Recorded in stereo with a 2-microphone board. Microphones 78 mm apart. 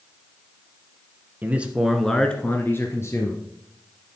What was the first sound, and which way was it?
A man speaking, 20° right (ahead or behind).